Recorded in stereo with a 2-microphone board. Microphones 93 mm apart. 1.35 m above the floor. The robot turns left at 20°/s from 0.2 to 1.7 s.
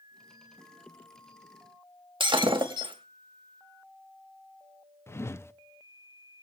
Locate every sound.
2.2 s breaking glass: 65° right (ahead or behind), 2.5 m
5.1 s a whoosh: 30° left (ahead or behind), 0.7 m